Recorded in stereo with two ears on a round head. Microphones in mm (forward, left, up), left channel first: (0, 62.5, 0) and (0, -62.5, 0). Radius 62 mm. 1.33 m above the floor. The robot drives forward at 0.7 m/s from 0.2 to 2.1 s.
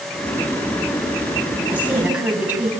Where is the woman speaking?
10° right (ahead or behind), 8.5 m.